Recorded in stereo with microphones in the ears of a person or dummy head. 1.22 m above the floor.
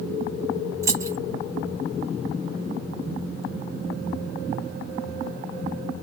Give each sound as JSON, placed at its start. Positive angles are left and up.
{"t": 0.8, "sound": "keys jangling", "side_deg": -20, "distance_m": 0.5}